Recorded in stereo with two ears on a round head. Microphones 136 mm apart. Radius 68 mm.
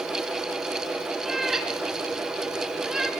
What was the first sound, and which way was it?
A cat meowing, 5° right (ahead or behind).